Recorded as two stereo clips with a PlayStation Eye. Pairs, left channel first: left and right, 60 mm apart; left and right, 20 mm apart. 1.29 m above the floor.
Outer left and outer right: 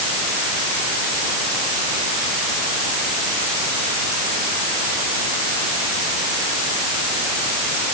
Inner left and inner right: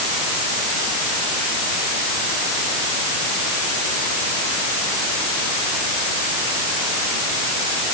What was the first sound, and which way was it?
Only background noise.